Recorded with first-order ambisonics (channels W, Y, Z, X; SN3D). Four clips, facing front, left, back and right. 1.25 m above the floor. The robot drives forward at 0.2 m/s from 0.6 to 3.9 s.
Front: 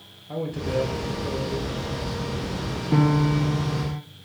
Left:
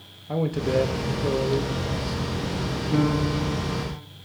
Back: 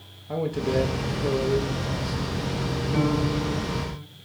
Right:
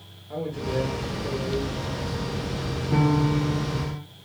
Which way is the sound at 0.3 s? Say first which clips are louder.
Left 5 dB, back 2 dB; 110° left.